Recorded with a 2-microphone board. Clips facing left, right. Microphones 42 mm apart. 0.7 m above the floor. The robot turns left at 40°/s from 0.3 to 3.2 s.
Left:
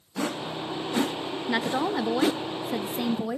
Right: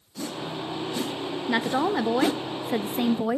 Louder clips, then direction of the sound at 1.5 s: Right 2 dB; 5° right (ahead or behind).